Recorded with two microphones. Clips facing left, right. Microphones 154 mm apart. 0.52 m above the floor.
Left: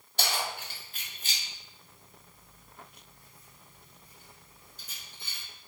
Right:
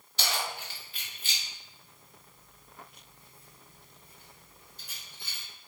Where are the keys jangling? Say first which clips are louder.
Left 1 dB; 55° left (ahead or behind), 1.6 m; by 5.4 s 70° right (ahead or behind), 1.4 m.